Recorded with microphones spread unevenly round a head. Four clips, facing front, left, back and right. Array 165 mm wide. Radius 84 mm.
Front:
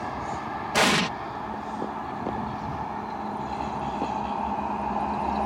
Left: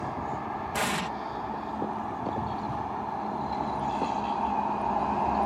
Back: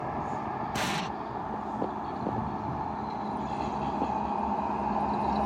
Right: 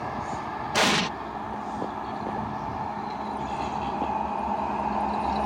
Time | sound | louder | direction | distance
0.7 | an explosion | right 7 dB, front 13 dB | 30° right | ?